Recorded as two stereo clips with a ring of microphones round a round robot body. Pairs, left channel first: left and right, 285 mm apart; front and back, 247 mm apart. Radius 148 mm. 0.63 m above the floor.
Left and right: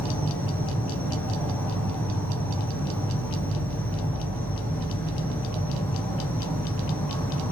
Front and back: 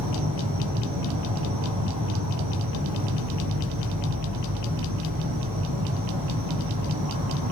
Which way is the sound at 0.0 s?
175° left.